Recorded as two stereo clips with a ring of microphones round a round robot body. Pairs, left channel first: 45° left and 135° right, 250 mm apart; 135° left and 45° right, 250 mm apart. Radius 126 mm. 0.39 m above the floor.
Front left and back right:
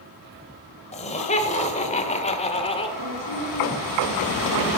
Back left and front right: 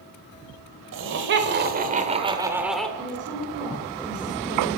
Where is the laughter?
15° right, 2.0 m; by 2.9 s 55° left, 1.2 m.